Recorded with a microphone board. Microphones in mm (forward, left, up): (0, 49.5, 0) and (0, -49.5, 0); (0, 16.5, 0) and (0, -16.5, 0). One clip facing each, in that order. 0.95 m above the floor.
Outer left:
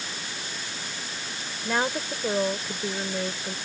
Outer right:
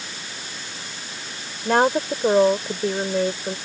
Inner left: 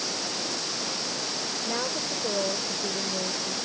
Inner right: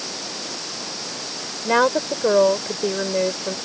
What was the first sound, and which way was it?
A woman speaking, 60° right (ahead or behind).